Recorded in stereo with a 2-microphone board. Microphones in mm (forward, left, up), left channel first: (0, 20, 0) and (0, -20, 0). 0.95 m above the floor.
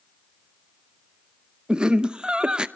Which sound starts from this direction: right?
Laughter, at 1.7 s.